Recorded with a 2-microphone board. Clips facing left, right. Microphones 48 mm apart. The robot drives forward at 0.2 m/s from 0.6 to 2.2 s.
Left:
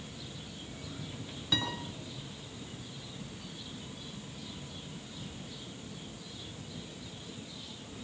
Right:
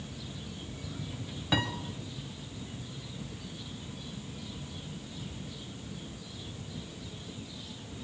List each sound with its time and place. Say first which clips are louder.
1.5 s a piano: right 3 dB; 30° right (ahead or behind), 2 m